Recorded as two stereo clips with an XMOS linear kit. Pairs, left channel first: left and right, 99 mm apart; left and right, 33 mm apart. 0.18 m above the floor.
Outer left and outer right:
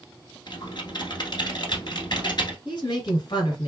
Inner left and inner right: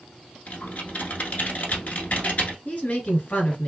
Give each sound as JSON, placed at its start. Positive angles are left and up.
{"t": 0.5, "sound": "typing on a keyboard", "side_deg": 50, "distance_m": 1.2}
{"t": 2.6, "sound": "a woman speaking", "side_deg": 50, "distance_m": 1.8}